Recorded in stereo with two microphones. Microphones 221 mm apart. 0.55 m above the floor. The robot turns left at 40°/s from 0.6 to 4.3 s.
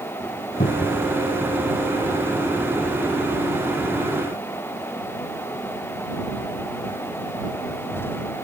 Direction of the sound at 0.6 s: 35° left (ahead or behind).